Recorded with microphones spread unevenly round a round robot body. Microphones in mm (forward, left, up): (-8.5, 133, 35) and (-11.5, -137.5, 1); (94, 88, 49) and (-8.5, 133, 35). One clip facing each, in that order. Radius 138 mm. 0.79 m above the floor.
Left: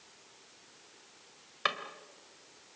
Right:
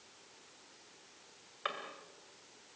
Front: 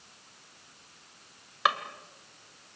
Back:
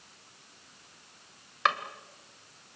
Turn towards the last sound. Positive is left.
turn(degrees=60)